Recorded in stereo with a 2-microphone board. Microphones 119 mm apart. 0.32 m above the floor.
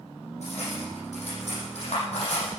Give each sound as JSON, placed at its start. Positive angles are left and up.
{"t": 0.4, "sound": "cutlery clinking", "side_deg": 70, "distance_m": 7.0}